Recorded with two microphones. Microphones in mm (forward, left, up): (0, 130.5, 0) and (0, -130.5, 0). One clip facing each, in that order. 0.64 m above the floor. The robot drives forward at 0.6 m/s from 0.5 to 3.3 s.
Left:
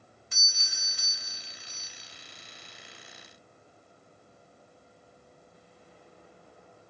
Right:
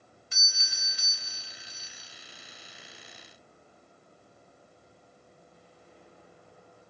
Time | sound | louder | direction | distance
0.3 | a doorbell | left 1 dB | 55° left (ahead or behind) | 1.8 m